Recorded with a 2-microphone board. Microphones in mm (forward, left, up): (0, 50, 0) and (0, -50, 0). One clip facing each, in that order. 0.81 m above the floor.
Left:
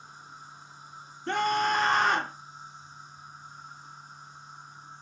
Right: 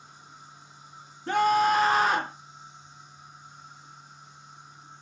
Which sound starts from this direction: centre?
A scream, at 1.3 s.